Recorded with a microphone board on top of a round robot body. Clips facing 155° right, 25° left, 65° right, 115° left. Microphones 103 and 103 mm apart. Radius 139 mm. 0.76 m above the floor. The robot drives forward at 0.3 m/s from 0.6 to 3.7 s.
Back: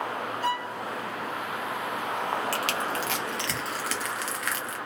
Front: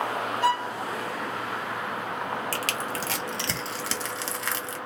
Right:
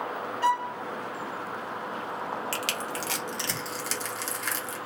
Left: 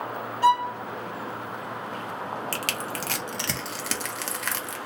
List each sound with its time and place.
0.4 s a violin: 40° left, 1.5 m
2.5 s crushing: 70° left, 1.2 m; by 4.8 s 85° left, 1.1 m